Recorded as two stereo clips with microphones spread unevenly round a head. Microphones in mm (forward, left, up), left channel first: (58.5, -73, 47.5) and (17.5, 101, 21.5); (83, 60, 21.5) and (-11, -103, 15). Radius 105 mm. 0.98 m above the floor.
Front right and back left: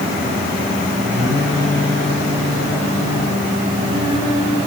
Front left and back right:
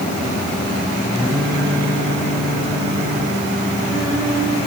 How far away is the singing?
About 9.5 m.